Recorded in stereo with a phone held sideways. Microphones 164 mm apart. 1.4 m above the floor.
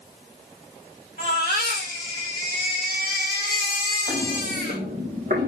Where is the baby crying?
80° right, 4.5 m.